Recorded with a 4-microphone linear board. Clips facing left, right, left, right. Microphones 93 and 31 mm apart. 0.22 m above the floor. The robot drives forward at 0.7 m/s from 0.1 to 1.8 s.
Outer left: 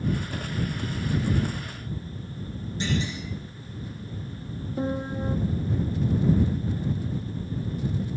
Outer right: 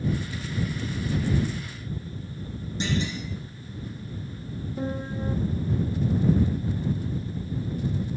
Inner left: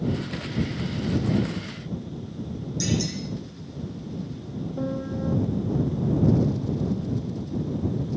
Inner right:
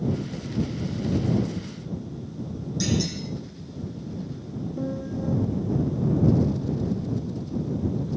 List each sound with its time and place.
2.8 s a clunk: 20° right (ahead or behind), 9 m
4.8 s a piano: 20° left (ahead or behind), 0.9 m